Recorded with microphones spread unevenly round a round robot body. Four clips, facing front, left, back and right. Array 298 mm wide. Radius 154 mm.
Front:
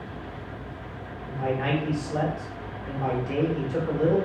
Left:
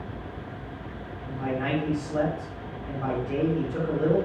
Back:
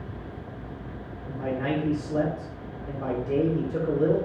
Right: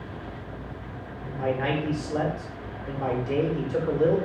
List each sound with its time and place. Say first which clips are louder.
1.2 s a man speaking: right 2 dB, front 1 dB; 130° right, 0.9 m